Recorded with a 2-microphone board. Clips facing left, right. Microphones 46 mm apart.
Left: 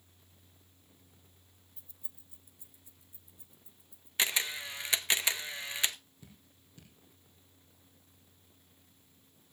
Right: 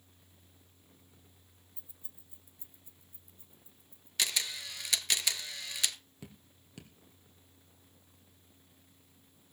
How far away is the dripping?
About 2.5 m.